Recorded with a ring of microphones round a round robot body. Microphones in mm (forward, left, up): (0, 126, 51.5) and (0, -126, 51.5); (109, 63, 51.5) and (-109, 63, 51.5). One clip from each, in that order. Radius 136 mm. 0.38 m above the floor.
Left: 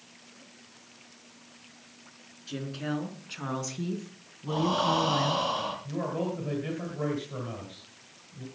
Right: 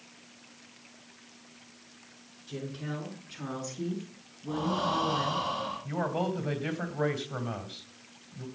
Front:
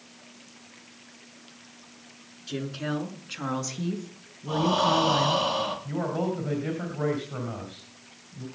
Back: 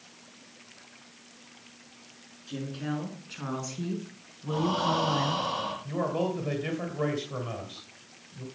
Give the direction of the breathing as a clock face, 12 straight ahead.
10 o'clock.